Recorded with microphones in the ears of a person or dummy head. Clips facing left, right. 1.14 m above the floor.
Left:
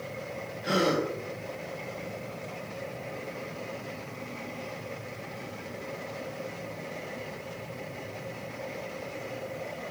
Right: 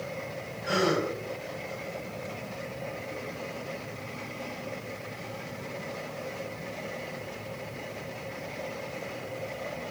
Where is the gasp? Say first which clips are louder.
Even; 40° left (ahead or behind), 1.6 m.